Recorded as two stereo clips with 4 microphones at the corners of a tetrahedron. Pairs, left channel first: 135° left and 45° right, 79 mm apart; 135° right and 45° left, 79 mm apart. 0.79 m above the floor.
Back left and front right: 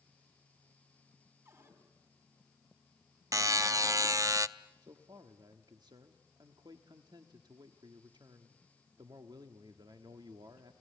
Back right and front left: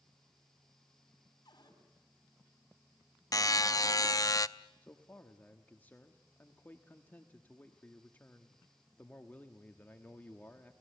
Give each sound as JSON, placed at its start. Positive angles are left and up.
{"t": 1.4, "sound": "a cupboard door", "azimuth_deg": -95, "distance_m": 5.0}
{"t": 3.3, "sound": "a buzzer", "azimuth_deg": -90, "distance_m": 0.5}
{"t": 4.8, "sound": "a man speaking", "azimuth_deg": -65, "distance_m": 1.2}